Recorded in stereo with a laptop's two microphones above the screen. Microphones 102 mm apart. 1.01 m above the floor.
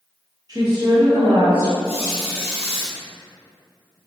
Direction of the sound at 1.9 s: 70° right (ahead or behind).